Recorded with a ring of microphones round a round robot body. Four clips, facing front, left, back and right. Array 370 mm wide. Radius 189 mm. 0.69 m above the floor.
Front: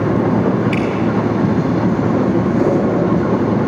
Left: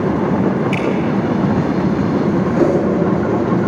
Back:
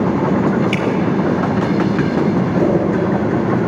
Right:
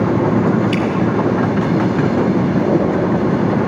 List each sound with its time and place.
0.7 s dripping: 130° right, 4 m
2.6 s a whoosh: 65° left, 6.5 m